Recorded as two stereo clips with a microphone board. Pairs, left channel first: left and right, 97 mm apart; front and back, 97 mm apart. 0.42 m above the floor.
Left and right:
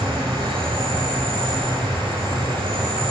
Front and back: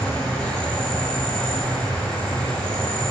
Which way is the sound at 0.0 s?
80° right.